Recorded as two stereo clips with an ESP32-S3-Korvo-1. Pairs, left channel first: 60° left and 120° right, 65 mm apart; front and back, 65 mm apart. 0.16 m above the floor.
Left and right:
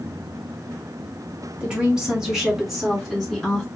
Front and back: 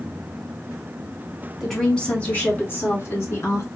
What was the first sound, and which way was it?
A woman speaking, 80° right.